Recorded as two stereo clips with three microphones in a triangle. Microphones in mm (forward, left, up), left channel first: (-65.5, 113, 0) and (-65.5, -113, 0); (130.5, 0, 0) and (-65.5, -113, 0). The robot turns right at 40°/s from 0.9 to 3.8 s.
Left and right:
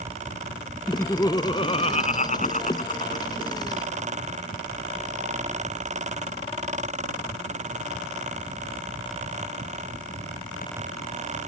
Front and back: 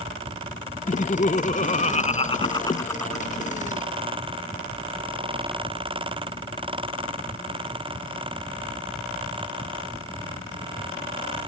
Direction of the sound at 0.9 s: 15° left.